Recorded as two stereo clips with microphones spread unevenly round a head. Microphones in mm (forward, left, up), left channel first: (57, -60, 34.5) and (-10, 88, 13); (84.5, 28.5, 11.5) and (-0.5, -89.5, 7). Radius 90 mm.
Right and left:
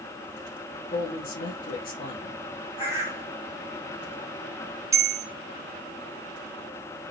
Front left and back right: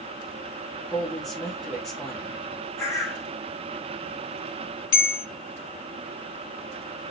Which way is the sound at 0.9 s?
35° right.